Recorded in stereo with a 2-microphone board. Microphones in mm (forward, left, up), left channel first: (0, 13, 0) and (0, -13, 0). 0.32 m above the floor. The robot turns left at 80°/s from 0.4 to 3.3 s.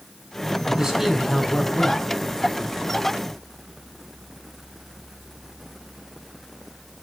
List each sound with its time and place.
0.7 s a man speaking: 145° right, 3 m; by 2.1 s 105° left, 3 m